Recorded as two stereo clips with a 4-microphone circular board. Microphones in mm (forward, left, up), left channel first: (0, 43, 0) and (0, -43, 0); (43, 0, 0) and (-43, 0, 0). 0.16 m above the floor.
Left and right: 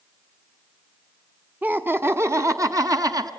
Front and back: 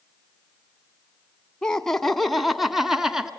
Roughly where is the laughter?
Ahead right.